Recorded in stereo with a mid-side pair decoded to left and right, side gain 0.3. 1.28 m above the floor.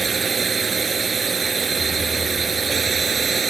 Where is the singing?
I don't hear singing.